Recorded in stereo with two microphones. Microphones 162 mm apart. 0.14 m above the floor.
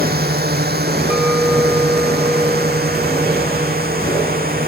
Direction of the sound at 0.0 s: 75° right (ahead or behind).